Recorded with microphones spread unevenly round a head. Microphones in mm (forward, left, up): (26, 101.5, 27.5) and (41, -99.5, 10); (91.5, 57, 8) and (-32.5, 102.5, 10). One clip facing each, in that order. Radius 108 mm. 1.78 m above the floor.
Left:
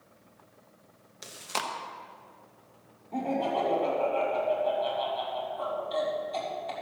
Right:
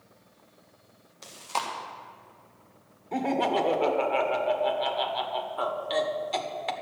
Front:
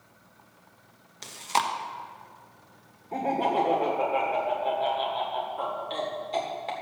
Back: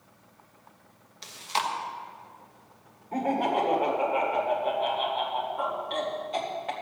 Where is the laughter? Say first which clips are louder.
Right 3 dB, even; 90° right, 1.7 m.